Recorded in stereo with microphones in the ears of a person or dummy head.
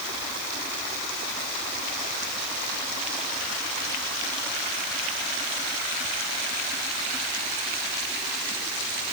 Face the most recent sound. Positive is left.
No sound to turn to.